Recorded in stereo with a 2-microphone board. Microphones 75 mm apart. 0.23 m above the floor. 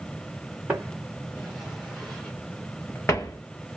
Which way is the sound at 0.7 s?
20° right (ahead or behind).